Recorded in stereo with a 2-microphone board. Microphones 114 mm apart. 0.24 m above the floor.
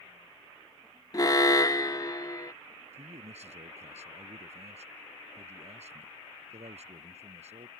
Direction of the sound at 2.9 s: 75° right (ahead or behind).